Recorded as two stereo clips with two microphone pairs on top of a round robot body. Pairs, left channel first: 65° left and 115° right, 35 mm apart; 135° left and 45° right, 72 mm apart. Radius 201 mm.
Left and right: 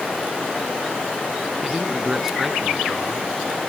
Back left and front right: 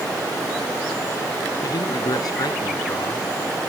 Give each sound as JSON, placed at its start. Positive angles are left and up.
{"t": 1.6, "sound": "a man speaking", "azimuth_deg": 165}